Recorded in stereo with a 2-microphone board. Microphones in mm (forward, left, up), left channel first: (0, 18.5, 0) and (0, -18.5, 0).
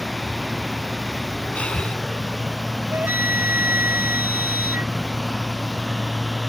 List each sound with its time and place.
0.0 s running water: centre (ahead or behind)
1.6 s breathing: 40° left (ahead or behind)
2.9 s a flute: 70° right (ahead or behind)